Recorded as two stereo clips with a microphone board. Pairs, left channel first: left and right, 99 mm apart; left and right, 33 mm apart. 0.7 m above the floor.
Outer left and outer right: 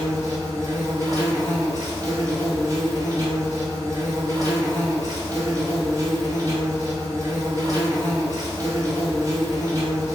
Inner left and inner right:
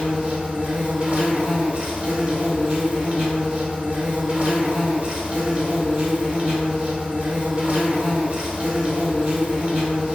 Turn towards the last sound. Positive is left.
turn(degrees=-35)  # may be behind; listen again after turning